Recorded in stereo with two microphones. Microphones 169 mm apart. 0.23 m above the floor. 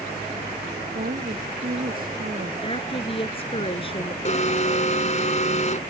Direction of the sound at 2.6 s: 35° left (ahead or behind).